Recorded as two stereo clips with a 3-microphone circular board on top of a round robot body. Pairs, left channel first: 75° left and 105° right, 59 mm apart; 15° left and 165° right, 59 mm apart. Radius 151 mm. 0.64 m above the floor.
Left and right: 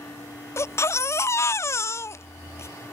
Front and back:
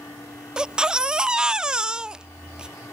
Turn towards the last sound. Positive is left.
turn(degrees=115)